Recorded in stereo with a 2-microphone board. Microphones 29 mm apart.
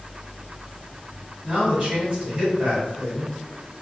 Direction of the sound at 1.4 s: 30° right (ahead or behind).